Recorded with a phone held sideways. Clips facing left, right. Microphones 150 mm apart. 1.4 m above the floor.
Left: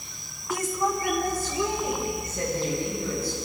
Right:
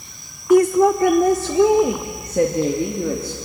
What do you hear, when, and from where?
0.5 s a woman speaking: 55° right (ahead or behind), 0.6 m; by 3.4 s 75° right (ahead or behind), 3 m